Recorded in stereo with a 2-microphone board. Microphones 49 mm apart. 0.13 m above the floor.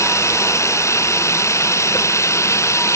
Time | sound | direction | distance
0.0 | running water | 85° left | ?